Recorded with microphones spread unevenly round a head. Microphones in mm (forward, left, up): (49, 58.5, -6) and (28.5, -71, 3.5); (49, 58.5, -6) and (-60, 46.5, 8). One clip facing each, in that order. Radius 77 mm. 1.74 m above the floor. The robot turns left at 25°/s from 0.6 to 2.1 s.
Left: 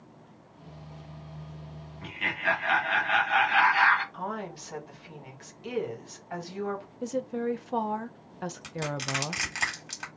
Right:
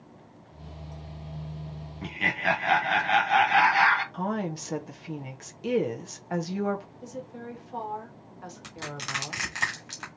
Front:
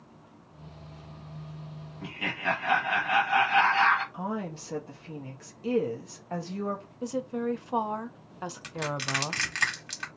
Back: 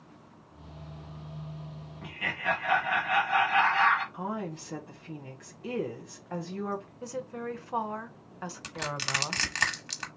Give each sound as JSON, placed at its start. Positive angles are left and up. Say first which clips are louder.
{"t": 2.0, "sound": "laughter", "louder": "right 3 dB, front 1 dB", "azimuth_deg": -60, "distance_m": 1.2}
{"t": 4.1, "sound": "a woman speaking", "louder": "right 5 dB, front 1 dB", "azimuth_deg": -65, "distance_m": 1.2}
{"t": 7.0, "sound": "a woman speaking", "louder": "left 9 dB, front 6 dB", "azimuth_deg": 75, "distance_m": 0.6}
{"t": 8.6, "sound": "crushing", "louder": "left 5 dB, front 3 dB", "azimuth_deg": 165, "distance_m": 1.4}